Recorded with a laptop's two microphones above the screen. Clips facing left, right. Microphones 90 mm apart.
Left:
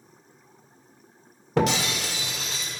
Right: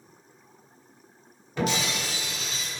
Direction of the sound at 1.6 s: 85° left.